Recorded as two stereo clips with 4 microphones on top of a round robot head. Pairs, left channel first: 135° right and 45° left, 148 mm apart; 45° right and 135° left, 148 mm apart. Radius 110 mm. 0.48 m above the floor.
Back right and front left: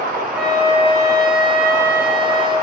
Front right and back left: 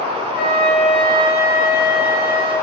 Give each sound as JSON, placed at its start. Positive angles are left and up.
{"t": 0.3, "sound": "a flute", "azimuth_deg": -35, "distance_m": 5.0}